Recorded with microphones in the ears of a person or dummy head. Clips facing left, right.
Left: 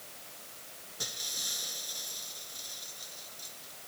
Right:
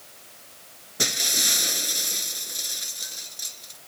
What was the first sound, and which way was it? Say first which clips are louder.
Breaking glass: right 16 dB; 75° right (ahead or behind).